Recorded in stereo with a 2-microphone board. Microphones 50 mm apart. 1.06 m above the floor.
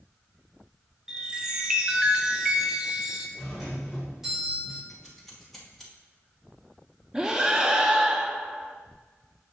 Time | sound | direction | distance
1.1 | a chime | 15° right (ahead or behind) | 0.9 m
3.4 | a doorbell | 10° right (ahead or behind) | 2 m
4.9 | scissors | 5° left (ahead or behind) | 1.9 m
7.1 | breathing | 15° right (ahead or behind) | 0.6 m